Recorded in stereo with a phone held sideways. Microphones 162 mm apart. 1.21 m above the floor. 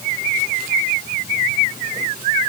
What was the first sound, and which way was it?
Only background noise.